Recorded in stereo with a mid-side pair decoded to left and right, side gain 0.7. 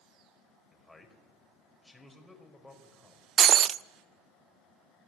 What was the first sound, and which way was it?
A man speaking, 5° left.